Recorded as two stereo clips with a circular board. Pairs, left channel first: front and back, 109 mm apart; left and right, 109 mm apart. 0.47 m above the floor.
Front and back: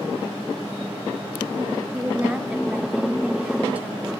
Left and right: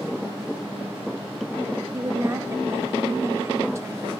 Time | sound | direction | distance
1.9 | a woman speaking | 115° right | 0.8 m